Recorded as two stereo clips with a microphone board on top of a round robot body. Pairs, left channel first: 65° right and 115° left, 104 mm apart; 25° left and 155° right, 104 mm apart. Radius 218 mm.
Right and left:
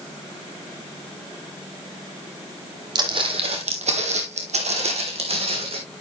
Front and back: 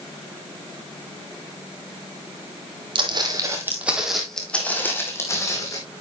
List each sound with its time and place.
3.0 s footsteps: 160° left, 1.7 m; by 5.8 s 80° left, 3 m